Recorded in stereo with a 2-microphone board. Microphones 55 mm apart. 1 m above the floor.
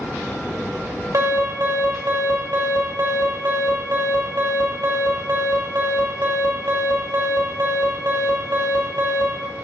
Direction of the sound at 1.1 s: 75° right (ahead or behind).